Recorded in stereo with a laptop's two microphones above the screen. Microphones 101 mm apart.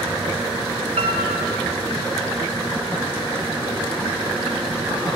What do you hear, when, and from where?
1.0 s a piano: 80° right, 6 m